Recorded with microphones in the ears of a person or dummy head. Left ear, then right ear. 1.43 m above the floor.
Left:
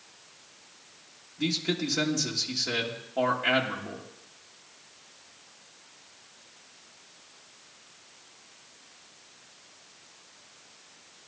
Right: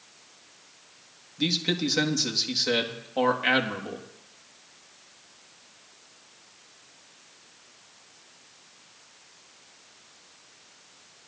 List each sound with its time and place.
1.4 s a man speaking: 35° right (ahead or behind), 1.8 m